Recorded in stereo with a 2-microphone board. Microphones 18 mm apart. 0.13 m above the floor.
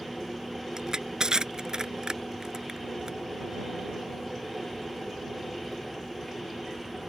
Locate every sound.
0.8 s crushing: 50° right (ahead or behind)